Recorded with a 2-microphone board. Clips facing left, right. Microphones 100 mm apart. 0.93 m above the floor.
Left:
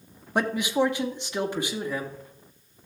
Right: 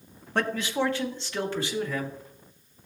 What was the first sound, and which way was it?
A man speaking, 10° left (ahead or behind).